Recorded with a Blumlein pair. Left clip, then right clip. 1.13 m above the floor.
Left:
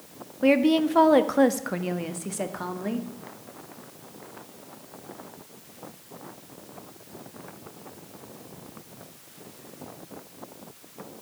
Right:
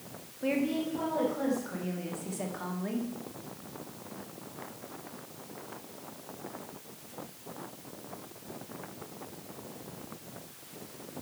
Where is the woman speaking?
30° left, 1.2 m; by 3.1 s 75° left, 1.9 m.